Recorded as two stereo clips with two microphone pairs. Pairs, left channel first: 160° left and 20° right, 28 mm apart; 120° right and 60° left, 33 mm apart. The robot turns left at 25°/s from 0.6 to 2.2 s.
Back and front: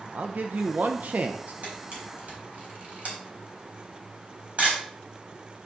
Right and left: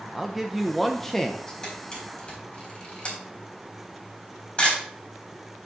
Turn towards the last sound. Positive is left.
turn(degrees=-65)